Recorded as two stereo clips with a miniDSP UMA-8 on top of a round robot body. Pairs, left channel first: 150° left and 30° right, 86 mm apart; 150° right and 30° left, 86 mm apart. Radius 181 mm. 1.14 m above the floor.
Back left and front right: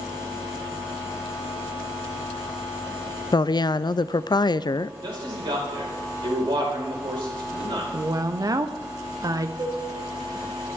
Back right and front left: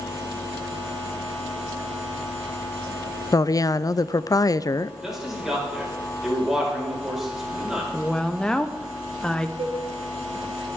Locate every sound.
3.3 s a woman speaking: 170° left, 0.6 m
5.0 s a man speaking: 55° right, 5 m
7.9 s a woman speaking: 70° right, 1.1 m
9.6 s a cowbell: 15° left, 2.5 m